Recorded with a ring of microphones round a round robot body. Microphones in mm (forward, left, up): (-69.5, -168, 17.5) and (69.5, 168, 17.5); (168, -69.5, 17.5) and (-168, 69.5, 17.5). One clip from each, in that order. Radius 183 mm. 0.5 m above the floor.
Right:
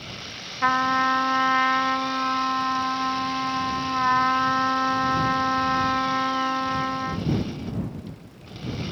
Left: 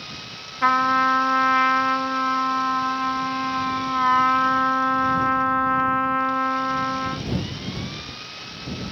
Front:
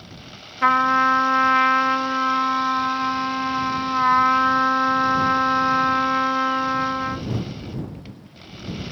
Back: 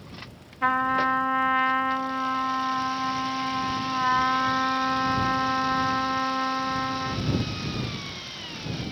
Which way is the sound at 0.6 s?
15° left.